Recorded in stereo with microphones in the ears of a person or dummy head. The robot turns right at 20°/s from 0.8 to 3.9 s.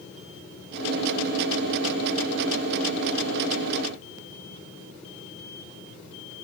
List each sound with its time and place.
Only background noise.